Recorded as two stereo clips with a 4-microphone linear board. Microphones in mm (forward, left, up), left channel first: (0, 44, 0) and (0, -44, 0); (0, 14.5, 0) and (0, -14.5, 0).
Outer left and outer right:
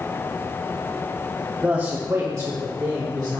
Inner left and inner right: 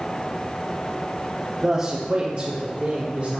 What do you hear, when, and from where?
1.6 s a man speaking: 10° right (ahead or behind), 0.6 m; by 3.4 s 50° right (ahead or behind), 1.6 m